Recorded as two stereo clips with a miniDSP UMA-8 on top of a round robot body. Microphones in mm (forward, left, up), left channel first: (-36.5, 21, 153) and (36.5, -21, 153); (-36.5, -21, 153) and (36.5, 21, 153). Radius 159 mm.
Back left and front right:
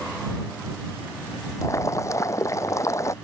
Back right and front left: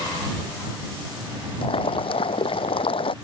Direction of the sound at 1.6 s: 155° right.